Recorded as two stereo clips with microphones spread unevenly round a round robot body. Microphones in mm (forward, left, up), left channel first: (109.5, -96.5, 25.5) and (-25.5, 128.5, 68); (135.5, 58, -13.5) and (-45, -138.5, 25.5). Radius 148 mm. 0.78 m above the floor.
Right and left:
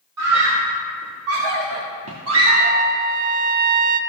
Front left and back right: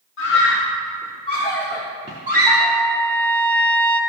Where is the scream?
95° left, 2.5 m; by 2.8 s straight behind, 1.6 m.